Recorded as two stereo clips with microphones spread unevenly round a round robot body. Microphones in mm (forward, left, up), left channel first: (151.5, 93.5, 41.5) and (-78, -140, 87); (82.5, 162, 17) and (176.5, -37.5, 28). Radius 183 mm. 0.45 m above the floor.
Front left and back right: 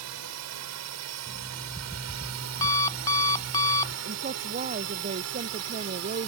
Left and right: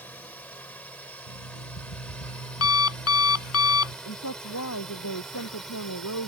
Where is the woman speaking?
160° left.